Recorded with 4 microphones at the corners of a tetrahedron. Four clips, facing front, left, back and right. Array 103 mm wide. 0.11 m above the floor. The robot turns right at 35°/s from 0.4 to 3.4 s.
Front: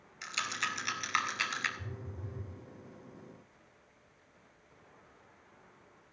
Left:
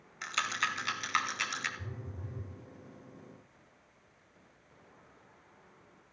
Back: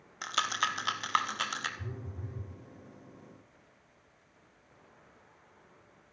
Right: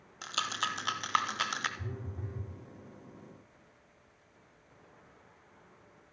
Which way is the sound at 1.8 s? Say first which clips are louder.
Right 3 dB, back 2 dB; 110° right.